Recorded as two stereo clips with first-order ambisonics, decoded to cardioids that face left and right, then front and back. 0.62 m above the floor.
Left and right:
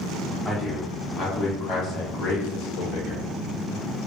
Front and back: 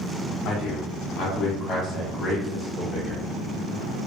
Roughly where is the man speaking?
Ahead.